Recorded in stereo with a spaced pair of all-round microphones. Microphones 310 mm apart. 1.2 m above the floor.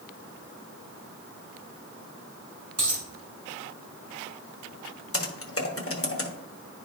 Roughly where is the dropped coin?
Right.